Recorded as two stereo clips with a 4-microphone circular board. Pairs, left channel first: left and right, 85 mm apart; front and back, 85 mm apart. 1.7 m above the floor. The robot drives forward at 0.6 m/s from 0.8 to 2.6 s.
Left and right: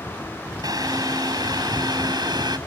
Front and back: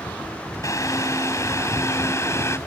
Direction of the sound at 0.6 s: 50° right.